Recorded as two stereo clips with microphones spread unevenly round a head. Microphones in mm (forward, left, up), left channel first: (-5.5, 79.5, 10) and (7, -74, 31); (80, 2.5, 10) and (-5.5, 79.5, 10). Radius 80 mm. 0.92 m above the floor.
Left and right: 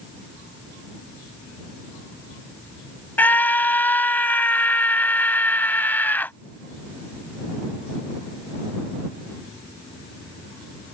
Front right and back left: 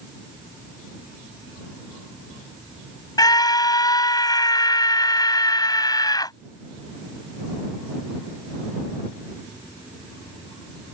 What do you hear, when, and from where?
3.2 s a scream: 15° left